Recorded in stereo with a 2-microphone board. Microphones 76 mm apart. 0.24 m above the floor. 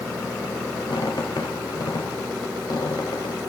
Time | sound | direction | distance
0.9 | a squeak | 65° left (ahead or behind) | 3.5 m